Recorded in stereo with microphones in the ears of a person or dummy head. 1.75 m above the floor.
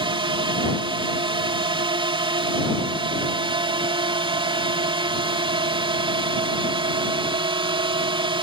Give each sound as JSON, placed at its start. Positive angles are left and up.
{"t": 0.0, "sound": "a drone", "side_deg": -20}